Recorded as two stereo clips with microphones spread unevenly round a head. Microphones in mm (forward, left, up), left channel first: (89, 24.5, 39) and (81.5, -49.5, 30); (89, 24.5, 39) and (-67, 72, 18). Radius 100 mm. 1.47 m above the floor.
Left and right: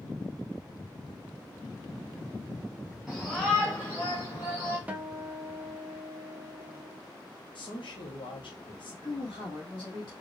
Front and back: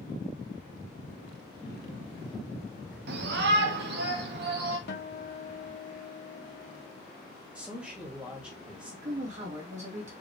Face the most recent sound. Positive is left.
turn(degrees=115)